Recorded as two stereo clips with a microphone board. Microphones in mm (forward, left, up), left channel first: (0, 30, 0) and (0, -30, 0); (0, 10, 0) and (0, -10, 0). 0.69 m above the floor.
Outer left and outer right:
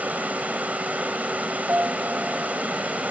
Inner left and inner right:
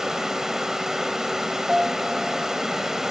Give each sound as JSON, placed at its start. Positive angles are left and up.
{"t": 0.0, "sound": "running water", "side_deg": -25}
{"t": 1.7, "sound": "a piano", "side_deg": -30}